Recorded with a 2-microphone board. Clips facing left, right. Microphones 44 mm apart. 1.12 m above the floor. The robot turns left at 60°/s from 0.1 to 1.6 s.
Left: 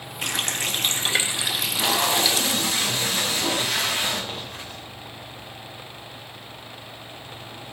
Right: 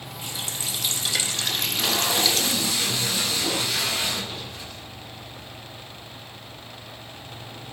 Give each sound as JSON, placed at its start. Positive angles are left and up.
{"t": 0.2, "sound": "a running tap", "azimuth_deg": 85, "distance_m": 0.7}
{"t": 1.5, "sound": "tape being pulled", "side_deg": 60, "distance_m": 7.5}